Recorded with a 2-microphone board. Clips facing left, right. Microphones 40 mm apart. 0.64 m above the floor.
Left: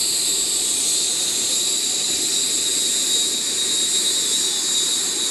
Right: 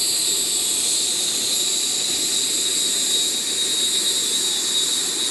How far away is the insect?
About 1.7 m.